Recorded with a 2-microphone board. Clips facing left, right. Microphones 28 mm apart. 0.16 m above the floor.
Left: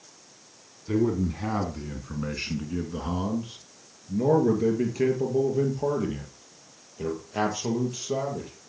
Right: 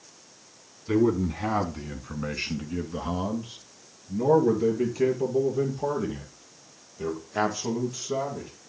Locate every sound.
0.9 s a man speaking: 25° right (ahead or behind), 1.1 m; by 8.5 s 20° left (ahead or behind), 4 m